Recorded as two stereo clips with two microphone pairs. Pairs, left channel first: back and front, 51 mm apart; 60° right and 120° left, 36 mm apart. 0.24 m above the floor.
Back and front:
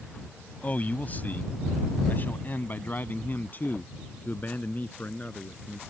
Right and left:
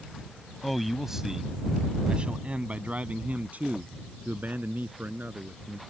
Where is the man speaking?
155° right; by 5.8 s 130° left.